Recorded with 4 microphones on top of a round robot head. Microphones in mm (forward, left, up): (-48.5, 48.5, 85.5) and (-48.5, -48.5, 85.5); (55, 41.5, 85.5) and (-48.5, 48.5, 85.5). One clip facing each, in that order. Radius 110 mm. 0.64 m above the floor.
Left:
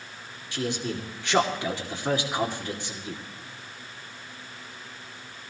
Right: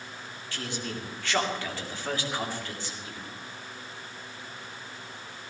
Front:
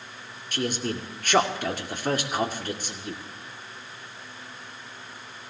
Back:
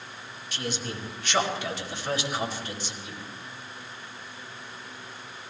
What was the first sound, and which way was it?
A man speaking, 20° left.